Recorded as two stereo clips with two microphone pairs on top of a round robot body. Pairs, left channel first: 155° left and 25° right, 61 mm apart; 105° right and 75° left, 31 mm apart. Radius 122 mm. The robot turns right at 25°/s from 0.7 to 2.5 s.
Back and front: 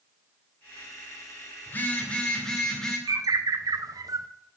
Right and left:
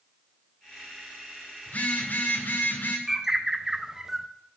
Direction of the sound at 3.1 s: Straight ahead.